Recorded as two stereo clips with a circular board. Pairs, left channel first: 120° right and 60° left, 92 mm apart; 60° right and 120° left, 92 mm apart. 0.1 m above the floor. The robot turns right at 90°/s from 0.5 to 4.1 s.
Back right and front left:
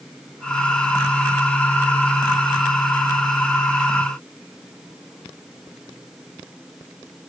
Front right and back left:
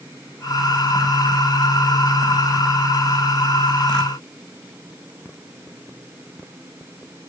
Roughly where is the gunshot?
I don't hear a gunshot.